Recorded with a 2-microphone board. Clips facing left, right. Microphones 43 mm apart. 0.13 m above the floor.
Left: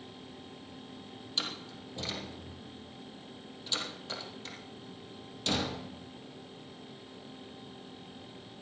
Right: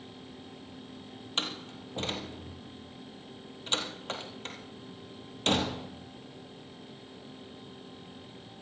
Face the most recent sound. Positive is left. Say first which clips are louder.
# right 3 dB
turn(degrees=-50)  # may be behind; listen again after turning